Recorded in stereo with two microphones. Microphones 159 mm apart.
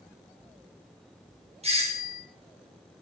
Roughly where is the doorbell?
Right.